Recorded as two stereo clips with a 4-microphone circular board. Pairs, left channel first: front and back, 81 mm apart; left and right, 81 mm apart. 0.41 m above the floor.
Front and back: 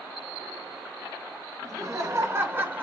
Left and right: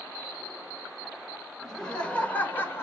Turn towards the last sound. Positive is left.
turn(degrees=125)